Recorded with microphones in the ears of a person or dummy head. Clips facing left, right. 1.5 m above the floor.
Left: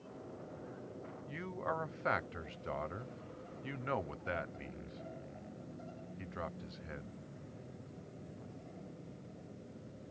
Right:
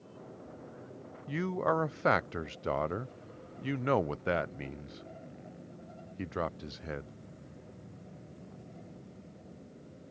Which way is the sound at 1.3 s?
55° right (ahead or behind).